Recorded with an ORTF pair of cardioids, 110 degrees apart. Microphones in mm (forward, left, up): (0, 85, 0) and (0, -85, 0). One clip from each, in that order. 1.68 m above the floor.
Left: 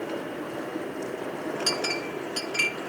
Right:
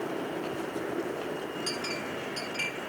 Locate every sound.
1.7 s a clink: 55° left, 1.8 m